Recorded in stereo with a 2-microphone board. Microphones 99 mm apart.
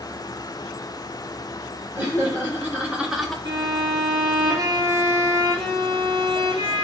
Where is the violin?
45° right (ahead or behind), 1.7 m.